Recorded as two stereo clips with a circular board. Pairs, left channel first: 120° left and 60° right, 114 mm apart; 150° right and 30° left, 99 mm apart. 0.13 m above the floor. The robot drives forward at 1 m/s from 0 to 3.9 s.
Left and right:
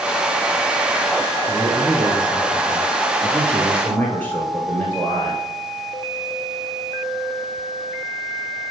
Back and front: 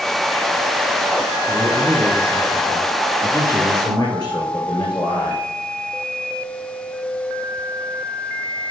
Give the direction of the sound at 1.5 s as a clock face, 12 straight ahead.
12 o'clock.